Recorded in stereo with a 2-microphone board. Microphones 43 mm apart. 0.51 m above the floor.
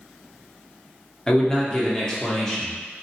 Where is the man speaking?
15° left (ahead or behind), 0.7 m.